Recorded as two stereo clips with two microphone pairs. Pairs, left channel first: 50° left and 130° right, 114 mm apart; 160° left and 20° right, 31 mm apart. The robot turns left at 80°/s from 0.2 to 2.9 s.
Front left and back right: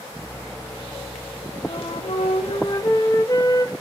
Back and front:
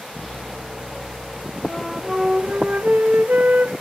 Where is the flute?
90° left, 1.8 m; by 3.7 s 5° right, 1.8 m.